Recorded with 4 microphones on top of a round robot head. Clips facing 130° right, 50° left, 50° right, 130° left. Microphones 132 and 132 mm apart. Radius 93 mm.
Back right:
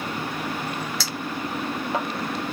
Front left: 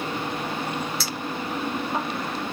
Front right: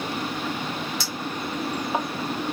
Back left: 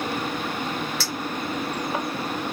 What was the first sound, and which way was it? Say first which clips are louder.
A clink: even, back left 1 dB; 120° right.